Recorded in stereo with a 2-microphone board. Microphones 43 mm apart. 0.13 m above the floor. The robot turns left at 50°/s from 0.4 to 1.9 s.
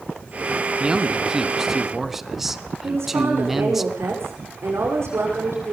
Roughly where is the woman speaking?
Right.